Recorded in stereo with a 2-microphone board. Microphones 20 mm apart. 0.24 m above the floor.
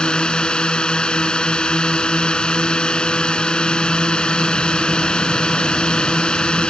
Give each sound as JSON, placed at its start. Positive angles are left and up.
{"t": 0.0, "sound": "a drone", "side_deg": 45}